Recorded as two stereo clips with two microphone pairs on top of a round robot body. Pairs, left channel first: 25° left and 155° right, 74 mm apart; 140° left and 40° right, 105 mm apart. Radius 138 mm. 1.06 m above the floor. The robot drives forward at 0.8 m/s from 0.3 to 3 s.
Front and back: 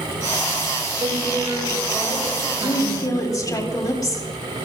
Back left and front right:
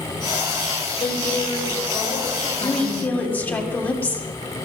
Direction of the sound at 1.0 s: Straight behind.